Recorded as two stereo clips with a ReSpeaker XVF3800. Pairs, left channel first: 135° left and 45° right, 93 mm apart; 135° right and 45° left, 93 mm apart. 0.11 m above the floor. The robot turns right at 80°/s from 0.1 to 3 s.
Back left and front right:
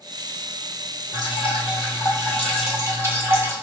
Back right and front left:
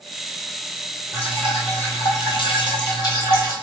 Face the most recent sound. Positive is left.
turn(degrees=-100)